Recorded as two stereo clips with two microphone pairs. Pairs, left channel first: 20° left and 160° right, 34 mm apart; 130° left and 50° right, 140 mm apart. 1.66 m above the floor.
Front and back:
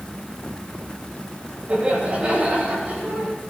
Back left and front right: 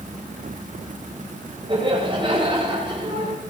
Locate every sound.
1.7 s laughter: 105° right, 9.5 m